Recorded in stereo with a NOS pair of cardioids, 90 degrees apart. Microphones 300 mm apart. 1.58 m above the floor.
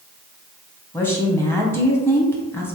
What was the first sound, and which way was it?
A woman speaking, 10° left.